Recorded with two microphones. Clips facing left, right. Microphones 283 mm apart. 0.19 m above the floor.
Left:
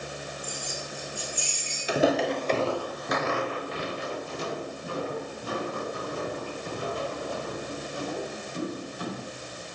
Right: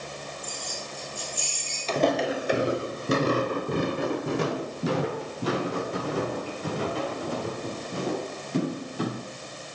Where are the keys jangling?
85° left, 9 m.